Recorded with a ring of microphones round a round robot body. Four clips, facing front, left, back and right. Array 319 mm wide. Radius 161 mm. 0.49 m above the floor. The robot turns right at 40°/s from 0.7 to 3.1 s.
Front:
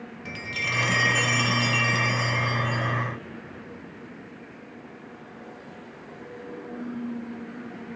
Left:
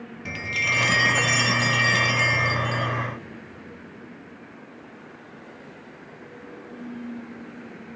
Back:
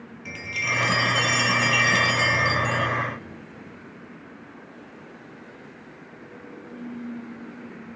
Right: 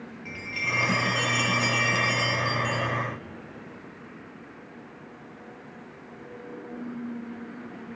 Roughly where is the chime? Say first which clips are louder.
Left 5 dB, back 3 dB; left.